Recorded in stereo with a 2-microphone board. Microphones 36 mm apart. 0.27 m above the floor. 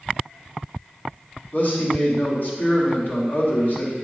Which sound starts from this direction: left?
A man speaking, at 1.5 s.